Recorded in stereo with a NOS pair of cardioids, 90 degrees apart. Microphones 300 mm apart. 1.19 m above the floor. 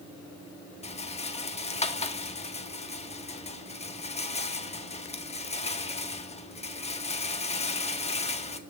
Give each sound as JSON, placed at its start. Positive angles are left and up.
{"t": 0.8, "sound": "a rattle", "azimuth_deg": 20, "distance_m": 1.5}